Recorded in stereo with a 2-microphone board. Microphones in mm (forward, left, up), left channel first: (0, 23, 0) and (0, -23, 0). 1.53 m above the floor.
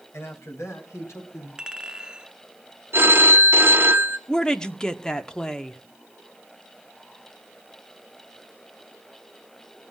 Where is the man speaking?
70° left (ahead or behind), 2 m; by 1.5 s 80° left, 4 m.